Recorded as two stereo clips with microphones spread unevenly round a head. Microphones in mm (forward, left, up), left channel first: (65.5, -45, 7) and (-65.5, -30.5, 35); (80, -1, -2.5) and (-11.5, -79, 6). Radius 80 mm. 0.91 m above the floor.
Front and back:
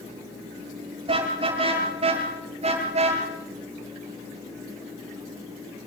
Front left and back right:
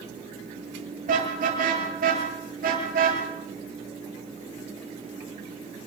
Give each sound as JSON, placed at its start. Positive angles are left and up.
{"t": 1.1, "sound": "a car horn", "azimuth_deg": -135, "distance_m": 8.0}